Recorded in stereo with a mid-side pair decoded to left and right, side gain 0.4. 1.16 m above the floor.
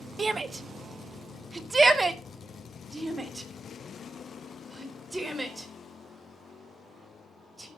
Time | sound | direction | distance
0.2 | a shout | 40° right | 1.4 m